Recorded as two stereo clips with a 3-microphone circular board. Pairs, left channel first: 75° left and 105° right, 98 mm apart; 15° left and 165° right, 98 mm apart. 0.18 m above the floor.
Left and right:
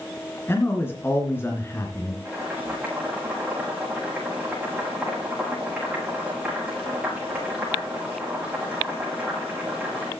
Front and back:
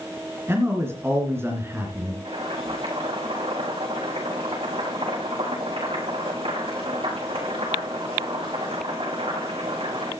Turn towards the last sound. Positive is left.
turn(degrees=-175)